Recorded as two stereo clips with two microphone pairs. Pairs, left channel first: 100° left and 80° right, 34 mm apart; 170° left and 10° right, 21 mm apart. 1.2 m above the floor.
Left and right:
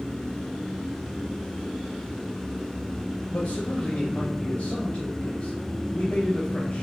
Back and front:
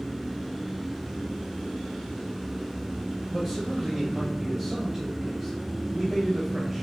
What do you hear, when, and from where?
3.3 s a man speaking: 60° left, 0.9 m